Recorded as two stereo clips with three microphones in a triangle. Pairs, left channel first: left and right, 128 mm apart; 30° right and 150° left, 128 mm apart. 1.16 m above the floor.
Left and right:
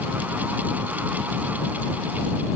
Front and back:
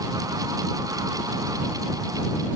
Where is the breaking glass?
I don't hear breaking glass.